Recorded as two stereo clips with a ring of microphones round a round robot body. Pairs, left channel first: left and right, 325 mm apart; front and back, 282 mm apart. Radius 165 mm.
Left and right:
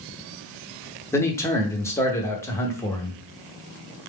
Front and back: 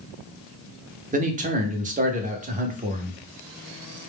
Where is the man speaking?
165° left, 1.0 m.